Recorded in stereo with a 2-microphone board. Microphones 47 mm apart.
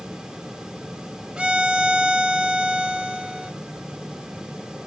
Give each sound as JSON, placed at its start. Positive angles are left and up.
{"t": 1.4, "sound": "a violin", "side_deg": -20, "distance_m": 0.8}